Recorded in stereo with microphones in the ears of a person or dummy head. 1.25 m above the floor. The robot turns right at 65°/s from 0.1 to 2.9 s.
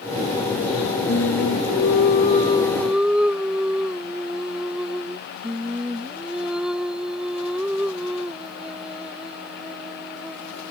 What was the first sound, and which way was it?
Singing, 60° left.